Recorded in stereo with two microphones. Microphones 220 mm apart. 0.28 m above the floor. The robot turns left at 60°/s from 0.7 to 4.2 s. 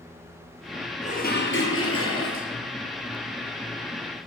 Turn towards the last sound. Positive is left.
turn(degrees=-40)